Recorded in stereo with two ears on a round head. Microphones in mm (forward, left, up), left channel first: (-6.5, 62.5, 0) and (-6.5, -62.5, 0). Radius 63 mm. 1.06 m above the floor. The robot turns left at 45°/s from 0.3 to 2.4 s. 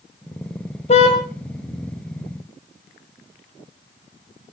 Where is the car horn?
45° left (ahead or behind), 3 m; by 1.2 s 60° left (ahead or behind), 3 m.